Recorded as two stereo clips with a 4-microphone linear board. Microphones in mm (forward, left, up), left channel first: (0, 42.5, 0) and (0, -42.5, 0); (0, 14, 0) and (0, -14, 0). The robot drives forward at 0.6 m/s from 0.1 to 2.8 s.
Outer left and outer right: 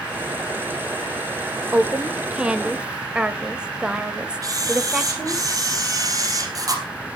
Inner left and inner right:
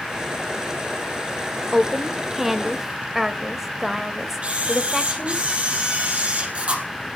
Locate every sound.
1.7 s a woman speaking: 15° right (ahead or behind), 1.0 m; by 5.4 s 10° right (ahead or behind), 1.4 m
4.4 s a camera shutter: 45° right (ahead or behind), 3 m